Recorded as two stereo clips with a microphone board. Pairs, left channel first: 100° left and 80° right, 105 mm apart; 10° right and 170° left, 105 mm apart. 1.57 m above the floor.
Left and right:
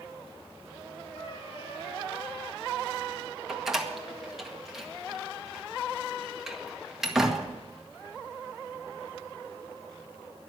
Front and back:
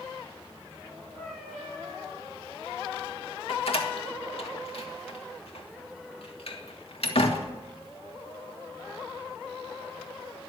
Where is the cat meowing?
80° left, 6.5 m.